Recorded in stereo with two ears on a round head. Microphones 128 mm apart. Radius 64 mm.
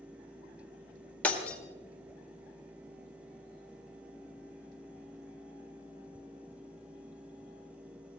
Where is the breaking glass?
10° left (ahead or behind), 1.8 m.